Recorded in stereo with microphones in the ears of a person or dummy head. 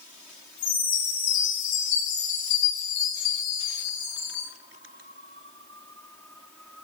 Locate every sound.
0.6 s a chime: 80° left, 4 m